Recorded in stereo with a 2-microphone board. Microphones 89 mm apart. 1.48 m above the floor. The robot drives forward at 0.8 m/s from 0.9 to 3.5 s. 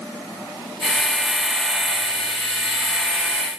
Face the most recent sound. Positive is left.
No sound to turn to.